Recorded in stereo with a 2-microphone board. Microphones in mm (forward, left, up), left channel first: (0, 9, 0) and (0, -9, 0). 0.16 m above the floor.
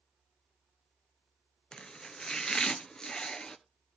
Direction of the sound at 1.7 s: 40° left (ahead or behind).